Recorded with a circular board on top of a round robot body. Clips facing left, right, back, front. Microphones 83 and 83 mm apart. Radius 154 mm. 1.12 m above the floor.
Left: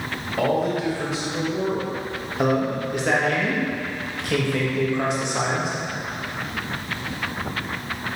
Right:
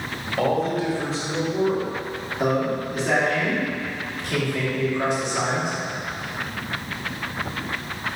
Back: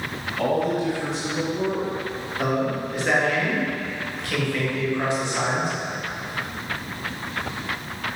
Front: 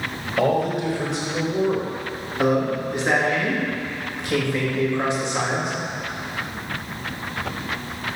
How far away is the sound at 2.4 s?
About 1.8 m.